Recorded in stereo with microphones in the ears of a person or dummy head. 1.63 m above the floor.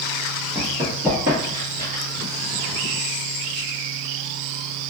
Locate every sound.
0.6 s running footsteps: 5° left (ahead or behind), 1.7 m; by 2.0 s 40° right (ahead or behind), 2 m